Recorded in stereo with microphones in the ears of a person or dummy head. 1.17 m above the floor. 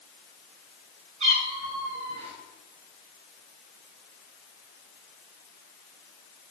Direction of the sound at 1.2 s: 40° right (ahead or behind).